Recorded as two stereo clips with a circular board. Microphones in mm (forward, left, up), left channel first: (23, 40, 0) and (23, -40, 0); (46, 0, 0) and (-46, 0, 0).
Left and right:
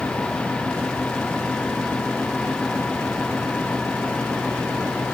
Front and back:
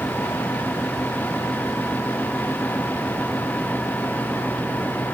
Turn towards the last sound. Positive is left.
No sound to turn to.